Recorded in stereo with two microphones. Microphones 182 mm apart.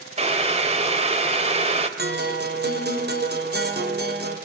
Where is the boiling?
35° right (ahead or behind), 3 m.